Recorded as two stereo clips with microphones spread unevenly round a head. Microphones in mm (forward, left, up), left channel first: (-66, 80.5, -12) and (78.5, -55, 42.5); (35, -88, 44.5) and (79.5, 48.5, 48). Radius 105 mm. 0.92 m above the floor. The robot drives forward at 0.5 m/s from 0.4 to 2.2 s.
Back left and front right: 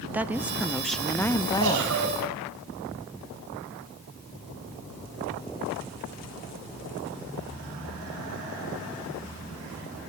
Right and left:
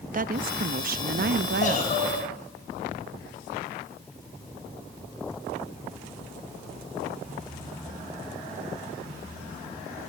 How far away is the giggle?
About 5.5 m.